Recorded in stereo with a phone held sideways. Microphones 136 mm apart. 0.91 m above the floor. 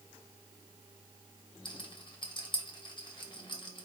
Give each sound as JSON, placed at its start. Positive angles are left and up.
{"t": 1.6, "sound": "a rattle", "side_deg": 35, "distance_m": 0.9}